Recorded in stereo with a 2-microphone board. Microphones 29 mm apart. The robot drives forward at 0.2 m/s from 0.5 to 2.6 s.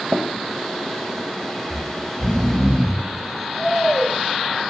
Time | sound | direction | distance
0.1 | tapping | 75° right (ahead or behind) | 0.6 m
1.7 | snoring | 20° left (ahead or behind) | 0.7 m